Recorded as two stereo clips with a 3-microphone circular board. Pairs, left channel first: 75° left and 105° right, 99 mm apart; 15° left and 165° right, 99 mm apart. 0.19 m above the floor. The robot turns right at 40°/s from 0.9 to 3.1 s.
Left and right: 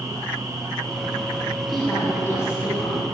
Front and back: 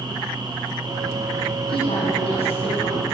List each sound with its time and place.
1.7 s a woman speaking: 15° right, 6.5 m; by 3.1 s 40° left, 6.5 m